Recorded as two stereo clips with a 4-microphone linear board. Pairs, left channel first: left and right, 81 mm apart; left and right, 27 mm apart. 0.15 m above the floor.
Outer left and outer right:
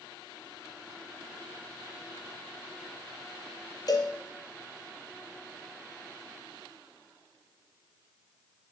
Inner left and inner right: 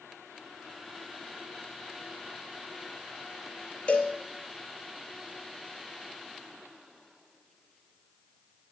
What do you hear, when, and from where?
3.9 s a cowbell: 50° left (ahead or behind), 1.1 m